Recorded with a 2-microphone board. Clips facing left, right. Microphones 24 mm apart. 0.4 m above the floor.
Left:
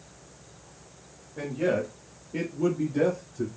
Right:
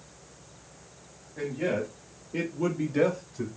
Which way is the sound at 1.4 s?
20° left (ahead or behind).